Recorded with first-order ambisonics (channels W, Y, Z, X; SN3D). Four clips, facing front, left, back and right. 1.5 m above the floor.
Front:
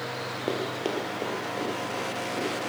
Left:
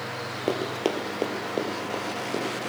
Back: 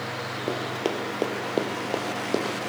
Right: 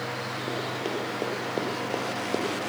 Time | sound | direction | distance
0.5 | running footsteps | 85° left | 1.8 m